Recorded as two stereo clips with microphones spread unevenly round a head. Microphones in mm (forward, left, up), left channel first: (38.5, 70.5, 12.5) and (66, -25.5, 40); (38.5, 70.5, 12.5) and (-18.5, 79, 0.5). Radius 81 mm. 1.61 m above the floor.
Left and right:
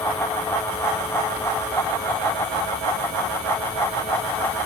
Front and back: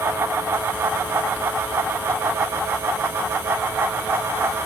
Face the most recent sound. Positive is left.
No sound to turn to.